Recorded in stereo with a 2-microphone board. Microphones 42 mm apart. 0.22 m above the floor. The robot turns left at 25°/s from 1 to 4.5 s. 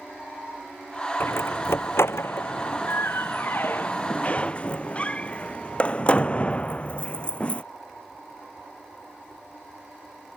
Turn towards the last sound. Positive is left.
turn(degrees=30)  # may be behind; listen again after turning